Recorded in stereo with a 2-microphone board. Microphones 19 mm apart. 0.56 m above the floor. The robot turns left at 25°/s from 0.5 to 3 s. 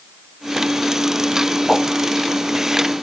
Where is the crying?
No crying in this recording.